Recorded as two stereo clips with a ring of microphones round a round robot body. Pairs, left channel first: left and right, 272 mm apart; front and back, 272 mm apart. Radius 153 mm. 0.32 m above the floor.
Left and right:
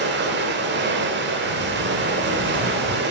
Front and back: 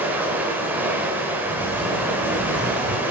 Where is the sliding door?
65° right, 3.5 m.